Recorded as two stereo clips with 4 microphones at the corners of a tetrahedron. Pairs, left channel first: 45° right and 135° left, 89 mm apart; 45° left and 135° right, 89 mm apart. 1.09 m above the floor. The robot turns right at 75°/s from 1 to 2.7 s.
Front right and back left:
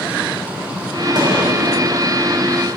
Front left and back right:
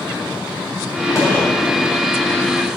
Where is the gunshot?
100° left, 3.5 m; by 1.5 s 125° left, 3.5 m.